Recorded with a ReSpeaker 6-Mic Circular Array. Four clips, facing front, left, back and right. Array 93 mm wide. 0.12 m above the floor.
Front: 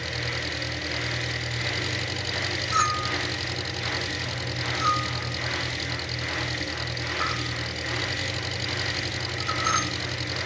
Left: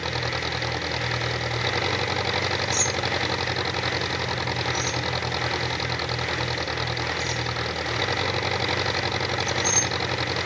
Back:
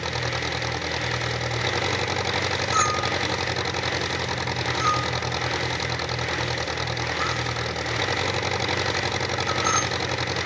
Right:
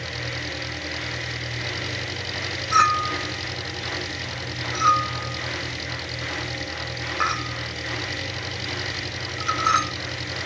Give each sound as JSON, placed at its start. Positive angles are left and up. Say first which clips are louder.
{"t": 0.0, "sound": "an engine running", "louder": "left 4 dB, back 5 dB", "azimuth_deg": 135}
{"t": 2.7, "sound": "a clink", "louder": "right 7 dB, even", "azimuth_deg": -95}